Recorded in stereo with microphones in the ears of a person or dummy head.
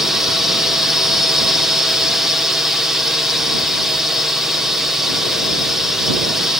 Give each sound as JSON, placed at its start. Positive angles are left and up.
{"t": 0.0, "sound": "a drone", "side_deg": 0}